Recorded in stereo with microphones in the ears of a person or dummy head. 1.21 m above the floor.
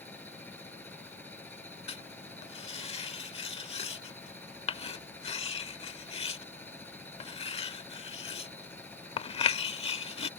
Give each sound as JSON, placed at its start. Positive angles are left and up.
{"t": 0.0, "sound": "a machine running", "side_deg": 5}
{"t": 1.9, "sound": "writing", "side_deg": 30}